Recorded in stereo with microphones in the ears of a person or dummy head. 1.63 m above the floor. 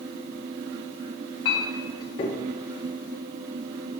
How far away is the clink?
About 0.5 m.